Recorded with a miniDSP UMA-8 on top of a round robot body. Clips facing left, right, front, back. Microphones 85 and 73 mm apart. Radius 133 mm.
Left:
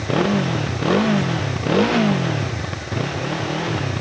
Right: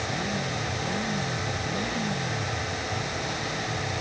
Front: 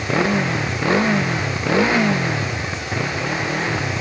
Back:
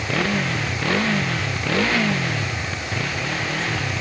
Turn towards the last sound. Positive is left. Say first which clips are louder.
# left 11 dB, front 4 dB
turn(degrees=70)